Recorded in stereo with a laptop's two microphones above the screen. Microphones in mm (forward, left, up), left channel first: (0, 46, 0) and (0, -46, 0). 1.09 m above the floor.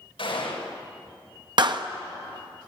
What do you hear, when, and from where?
0.2 s a gunshot: 85° left, 5.5 m
1.6 s a clap: 55° right (ahead or behind), 0.8 m